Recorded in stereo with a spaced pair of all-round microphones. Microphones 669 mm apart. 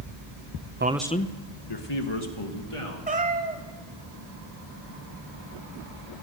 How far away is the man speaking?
About 0.5 m.